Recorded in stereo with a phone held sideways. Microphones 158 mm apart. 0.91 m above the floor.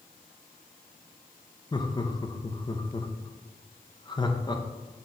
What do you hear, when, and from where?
1.7 s laughter: 30° left (ahead or behind), 0.8 m